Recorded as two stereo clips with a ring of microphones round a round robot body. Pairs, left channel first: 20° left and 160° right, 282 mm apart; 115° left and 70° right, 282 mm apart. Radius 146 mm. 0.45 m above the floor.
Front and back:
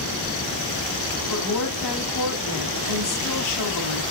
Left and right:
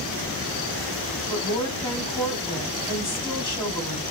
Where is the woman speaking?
40° left, 4 m.